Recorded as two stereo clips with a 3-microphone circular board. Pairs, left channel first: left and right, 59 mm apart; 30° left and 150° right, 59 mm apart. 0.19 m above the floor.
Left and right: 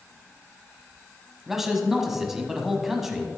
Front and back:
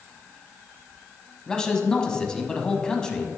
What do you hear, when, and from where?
1.5 s a man speaking: 20° right, 1.0 m